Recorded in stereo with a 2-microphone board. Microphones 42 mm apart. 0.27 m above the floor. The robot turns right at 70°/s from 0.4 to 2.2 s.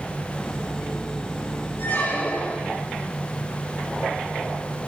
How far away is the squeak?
About 5 m.